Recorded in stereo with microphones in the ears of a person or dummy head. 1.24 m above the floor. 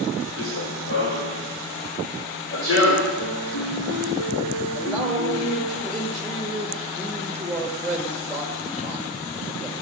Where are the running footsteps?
60° left (ahead or behind), 5.5 m; by 3.1 s 80° left, 6 m.